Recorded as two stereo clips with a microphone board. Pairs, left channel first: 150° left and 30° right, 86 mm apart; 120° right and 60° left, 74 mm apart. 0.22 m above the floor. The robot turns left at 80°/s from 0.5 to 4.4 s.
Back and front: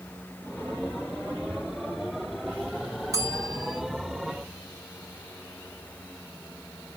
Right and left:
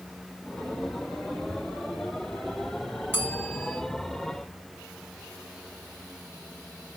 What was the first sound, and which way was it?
A bell, 5° left.